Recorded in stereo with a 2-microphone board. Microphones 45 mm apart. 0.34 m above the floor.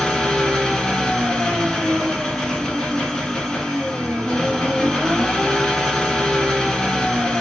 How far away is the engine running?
About 1.0 m.